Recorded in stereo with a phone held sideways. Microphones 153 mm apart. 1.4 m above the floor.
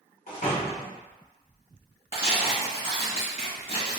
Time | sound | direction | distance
0.3 | a door slam | 55° left (ahead or behind) | 1.1 m
2.1 | tearing paper | 35° left (ahead or behind) | 2.0 m